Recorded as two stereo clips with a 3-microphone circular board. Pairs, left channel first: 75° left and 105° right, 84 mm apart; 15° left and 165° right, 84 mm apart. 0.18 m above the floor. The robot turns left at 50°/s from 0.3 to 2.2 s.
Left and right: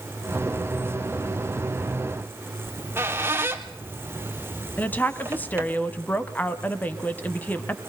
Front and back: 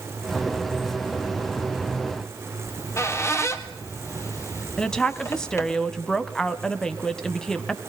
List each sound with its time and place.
2.6 s a squeak: 40° right, 1.7 m
4.8 s a woman speaking: 80° left, 1.0 m